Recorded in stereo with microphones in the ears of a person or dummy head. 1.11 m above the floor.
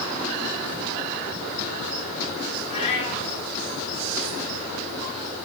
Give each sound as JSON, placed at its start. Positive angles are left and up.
{"t": 2.7, "sound": "a cat meowing", "side_deg": 40, "distance_m": 2.0}